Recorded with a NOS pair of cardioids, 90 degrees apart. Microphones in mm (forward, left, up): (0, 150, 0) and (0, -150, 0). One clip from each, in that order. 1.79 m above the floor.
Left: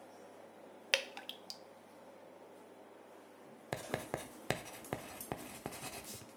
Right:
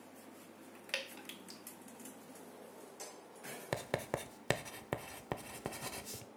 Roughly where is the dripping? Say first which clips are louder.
Left 6 dB; ahead left.